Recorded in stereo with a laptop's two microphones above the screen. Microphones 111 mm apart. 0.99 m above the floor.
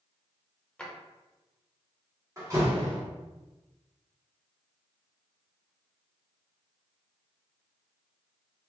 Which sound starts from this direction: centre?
A drawer, at 0.8 s.